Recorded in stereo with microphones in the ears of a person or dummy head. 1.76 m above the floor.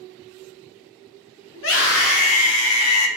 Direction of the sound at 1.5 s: 75° left (ahead or behind).